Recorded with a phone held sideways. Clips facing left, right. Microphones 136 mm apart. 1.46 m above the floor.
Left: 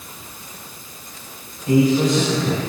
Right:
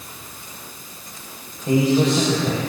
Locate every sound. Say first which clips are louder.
1.7 s a man speaking: left 1 dB; 35° right (ahead or behind), 8.5 m